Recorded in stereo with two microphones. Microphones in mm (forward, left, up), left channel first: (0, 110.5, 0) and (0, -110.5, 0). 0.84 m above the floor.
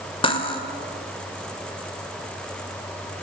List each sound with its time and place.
0.2 s cutlery clinking: 25° left (ahead or behind), 2 m